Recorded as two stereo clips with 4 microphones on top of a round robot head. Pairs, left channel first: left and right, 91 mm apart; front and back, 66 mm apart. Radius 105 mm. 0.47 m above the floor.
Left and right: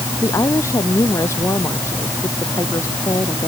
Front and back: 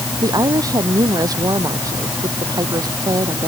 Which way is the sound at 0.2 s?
155° left.